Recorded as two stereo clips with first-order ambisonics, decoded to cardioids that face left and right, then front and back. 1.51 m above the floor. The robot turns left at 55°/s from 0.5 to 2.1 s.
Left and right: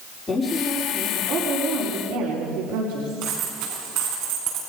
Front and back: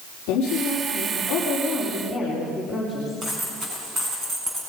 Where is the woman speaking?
5° left, 4.5 m; by 3.2 s 85° right, 4.5 m.